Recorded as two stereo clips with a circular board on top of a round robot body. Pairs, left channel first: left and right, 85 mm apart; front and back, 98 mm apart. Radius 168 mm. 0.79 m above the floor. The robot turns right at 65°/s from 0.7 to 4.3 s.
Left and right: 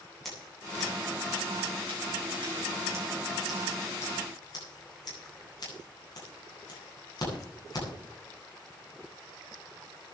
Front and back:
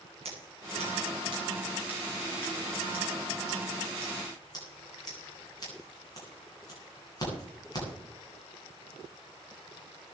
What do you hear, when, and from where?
0.2 s scissors: straight behind, 9.5 m; by 7.9 s 50° left, 9.5 m